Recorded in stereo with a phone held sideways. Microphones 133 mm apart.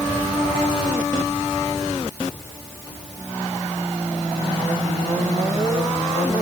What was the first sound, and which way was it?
Only background noise.